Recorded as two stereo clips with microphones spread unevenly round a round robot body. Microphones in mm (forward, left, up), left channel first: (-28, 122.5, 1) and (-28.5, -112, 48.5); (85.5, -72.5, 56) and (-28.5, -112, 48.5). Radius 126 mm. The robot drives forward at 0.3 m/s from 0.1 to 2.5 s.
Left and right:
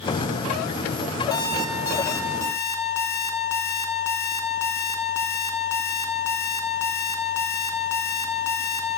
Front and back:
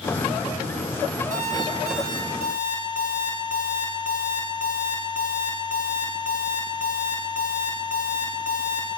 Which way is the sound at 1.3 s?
165° left.